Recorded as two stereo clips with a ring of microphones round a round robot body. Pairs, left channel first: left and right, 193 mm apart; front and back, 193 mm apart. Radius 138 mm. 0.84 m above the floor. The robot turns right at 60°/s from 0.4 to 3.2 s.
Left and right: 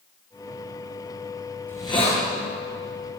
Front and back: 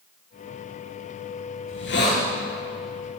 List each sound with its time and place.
1.7 s a hiss: 10° left, 6 m; by 2.2 s 45° left, 6 m